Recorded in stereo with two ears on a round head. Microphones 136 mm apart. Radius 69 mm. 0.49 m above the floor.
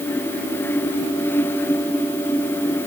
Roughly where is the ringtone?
No ringtone in this recording.